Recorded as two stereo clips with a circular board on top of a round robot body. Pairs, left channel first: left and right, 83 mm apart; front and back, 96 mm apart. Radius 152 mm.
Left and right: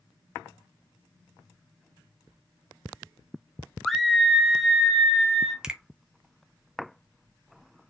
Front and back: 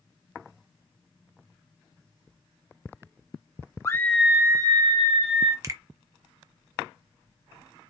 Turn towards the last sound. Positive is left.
turn(degrees=-160)